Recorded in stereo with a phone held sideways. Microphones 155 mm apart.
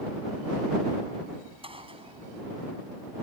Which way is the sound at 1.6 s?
40° right (ahead or behind).